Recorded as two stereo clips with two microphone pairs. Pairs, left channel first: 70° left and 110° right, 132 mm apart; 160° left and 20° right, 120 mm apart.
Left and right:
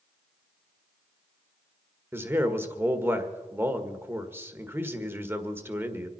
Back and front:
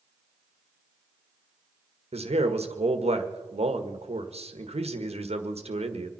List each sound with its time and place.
2.1 s a man speaking: 40° right, 1.6 m